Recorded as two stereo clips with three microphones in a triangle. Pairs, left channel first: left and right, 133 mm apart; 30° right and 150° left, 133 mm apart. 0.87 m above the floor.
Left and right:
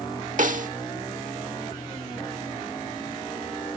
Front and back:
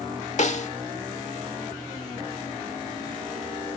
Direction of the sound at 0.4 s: 65° right.